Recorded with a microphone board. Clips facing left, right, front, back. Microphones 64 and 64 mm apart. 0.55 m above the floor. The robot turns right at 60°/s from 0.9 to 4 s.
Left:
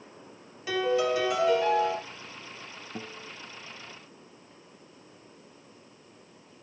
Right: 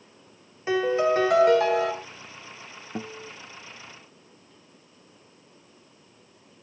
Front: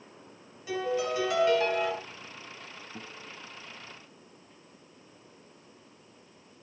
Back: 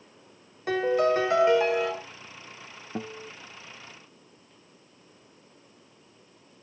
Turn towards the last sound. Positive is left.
turn(degrees=-90)